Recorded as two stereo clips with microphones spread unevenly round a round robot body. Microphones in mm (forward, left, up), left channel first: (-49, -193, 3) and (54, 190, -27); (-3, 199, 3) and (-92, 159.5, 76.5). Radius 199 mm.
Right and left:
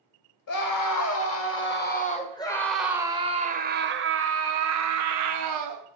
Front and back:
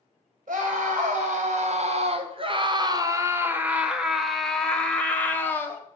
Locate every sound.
0.5 s a scream: 135° right, 1.9 m; by 5.8 s 50° left, 2.5 m